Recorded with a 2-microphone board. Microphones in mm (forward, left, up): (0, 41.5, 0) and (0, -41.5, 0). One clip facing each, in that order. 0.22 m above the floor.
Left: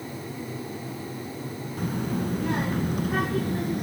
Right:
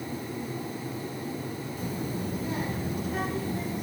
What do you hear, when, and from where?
1.8 s a child speaking: 60° left (ahead or behind), 1.5 m